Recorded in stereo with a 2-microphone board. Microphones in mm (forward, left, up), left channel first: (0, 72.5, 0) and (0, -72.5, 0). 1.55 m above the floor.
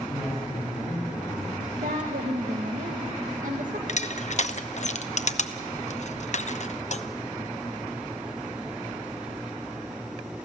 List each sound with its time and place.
0.1 s a man speaking: 5° right (ahead or behind), 8 m
1.8 s a woman speaking: 65° right (ahead or behind), 1.7 m
3.9 s crushing: 55° left (ahead or behind), 0.9 m